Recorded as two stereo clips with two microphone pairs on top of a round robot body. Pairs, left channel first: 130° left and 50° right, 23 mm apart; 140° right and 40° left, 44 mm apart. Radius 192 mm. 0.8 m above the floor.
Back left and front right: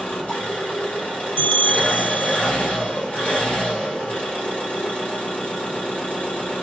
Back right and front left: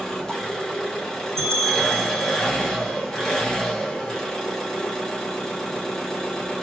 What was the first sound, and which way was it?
An engine running, 145° left.